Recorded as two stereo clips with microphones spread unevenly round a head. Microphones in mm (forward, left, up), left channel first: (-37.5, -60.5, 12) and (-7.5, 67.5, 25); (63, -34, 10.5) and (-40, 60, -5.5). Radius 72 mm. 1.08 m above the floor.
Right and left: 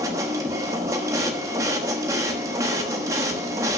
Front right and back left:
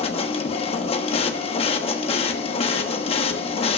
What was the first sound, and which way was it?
A machine running, 5° left.